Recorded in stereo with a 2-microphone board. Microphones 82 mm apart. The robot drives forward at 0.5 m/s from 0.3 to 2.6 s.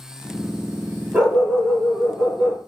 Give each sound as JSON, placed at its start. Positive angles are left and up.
{"t": 1.1, "sound": "a dog barking", "side_deg": -20, "distance_m": 2.5}